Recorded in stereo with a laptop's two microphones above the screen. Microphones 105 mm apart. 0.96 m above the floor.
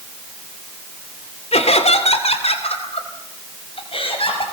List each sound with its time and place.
1.5 s laughter: 80° left, 2.5 m; by 4.4 s 60° left (ahead or behind), 5.5 m